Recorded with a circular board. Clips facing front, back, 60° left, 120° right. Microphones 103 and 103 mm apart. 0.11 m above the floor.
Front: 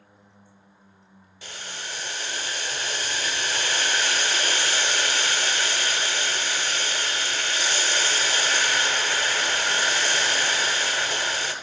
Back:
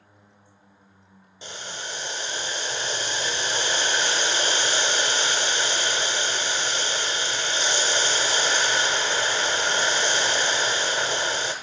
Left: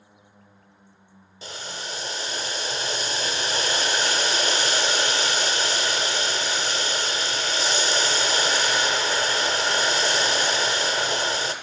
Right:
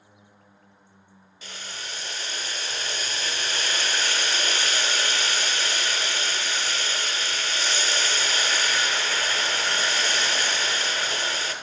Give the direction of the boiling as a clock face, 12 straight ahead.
8 o'clock.